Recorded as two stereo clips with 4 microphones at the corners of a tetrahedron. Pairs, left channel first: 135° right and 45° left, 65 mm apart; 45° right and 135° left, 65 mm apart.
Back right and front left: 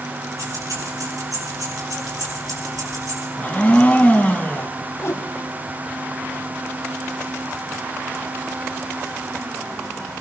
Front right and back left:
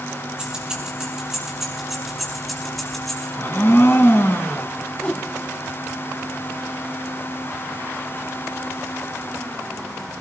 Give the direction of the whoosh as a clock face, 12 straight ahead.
4 o'clock.